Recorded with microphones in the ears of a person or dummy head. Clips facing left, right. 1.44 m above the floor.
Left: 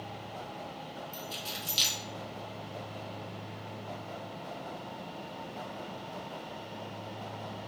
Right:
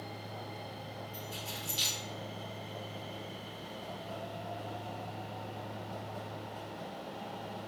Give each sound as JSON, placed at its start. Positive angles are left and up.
{"t": 1.1, "sound": "keys jangling", "side_deg": 55, "distance_m": 1.2}